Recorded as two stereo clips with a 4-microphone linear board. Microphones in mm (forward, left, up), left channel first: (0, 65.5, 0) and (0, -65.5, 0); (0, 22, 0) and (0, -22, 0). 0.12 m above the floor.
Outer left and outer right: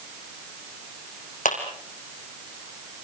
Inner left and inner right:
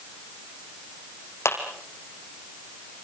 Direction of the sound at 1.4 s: 80° left.